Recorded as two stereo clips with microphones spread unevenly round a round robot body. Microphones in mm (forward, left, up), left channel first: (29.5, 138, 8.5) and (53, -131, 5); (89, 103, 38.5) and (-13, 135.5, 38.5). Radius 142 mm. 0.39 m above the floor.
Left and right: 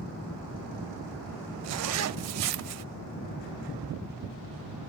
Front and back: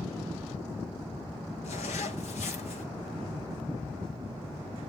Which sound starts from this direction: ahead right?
A zipper, at 1.6 s.